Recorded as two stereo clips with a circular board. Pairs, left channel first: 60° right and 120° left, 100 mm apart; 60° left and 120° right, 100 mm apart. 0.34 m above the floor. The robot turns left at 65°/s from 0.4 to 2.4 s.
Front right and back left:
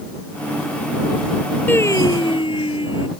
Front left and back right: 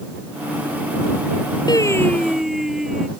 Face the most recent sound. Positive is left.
turn(degrees=-35)